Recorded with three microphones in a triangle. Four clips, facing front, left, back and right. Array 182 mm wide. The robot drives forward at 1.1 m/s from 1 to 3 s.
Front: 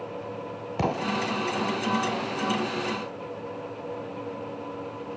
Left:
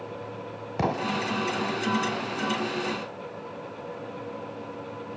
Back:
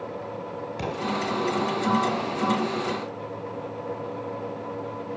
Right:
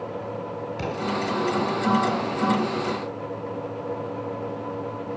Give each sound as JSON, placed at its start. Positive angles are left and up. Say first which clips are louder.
{"t": 0.8, "sound": "an explosion", "louder": "left 2 dB, front 3 dB", "azimuth_deg": 50, "distance_m": 1.3}